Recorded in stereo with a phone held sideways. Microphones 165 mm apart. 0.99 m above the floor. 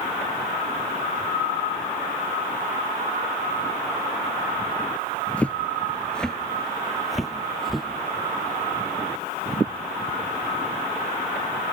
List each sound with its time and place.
5.4 s footsteps: 10° left (ahead or behind), 1.1 m; by 7.9 s centre (ahead or behind), 2 m